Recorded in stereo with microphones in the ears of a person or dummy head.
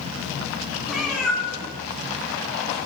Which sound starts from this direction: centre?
A cat meowing, at 0.9 s.